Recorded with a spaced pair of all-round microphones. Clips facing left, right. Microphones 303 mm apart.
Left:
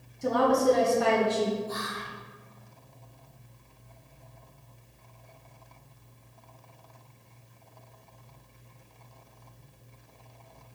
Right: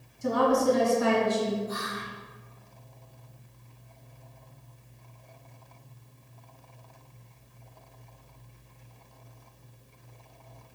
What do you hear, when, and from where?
0.2 s a woman speaking: 70° left (ahead or behind), 1.1 m
1.7 s whispering: 50° left (ahead or behind), 1.5 m